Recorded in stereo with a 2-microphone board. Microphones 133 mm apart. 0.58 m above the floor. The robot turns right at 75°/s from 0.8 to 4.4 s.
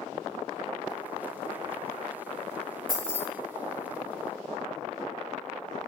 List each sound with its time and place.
2.9 s keys jangling: centre (ahead or behind), 1.0 m; by 3.2 s 20° right (ahead or behind), 1.0 m